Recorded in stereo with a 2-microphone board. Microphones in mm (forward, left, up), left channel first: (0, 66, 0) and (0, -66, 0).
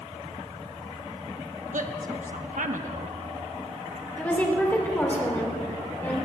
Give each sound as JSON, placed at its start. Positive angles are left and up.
{"t": 1.7, "sound": "a woman speaking", "side_deg": -75, "distance_m": 1.2}
{"t": 4.2, "sound": "a woman speaking", "side_deg": 15, "distance_m": 4.0}